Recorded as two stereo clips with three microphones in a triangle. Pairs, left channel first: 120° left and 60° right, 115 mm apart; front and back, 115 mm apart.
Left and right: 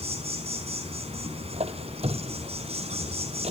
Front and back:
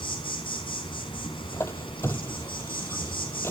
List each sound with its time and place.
0.0 s an insect: 40° right, 4.5 m
1.5 s a squeak: 65° right, 1.0 m